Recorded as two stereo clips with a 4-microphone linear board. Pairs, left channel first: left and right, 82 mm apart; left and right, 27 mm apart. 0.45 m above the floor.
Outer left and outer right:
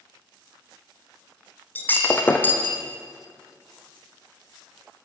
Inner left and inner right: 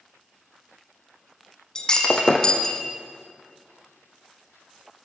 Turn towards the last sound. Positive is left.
turn(degrees=25)  # may be behind; listen again after turning